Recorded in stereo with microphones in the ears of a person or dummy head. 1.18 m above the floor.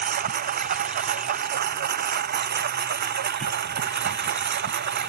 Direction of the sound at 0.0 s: 50° right (ahead or behind).